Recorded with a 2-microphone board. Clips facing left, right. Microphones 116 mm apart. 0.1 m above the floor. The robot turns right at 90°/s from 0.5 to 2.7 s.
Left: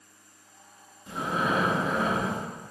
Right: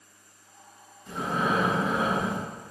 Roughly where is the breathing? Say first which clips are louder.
Right 1 dB; centre.